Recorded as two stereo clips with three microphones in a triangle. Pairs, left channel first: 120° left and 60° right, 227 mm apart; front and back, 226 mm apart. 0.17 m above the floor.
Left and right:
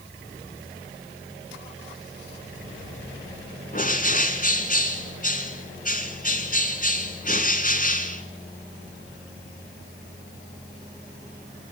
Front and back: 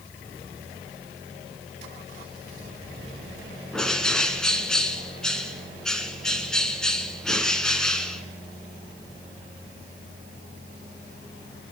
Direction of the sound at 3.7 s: 85° left.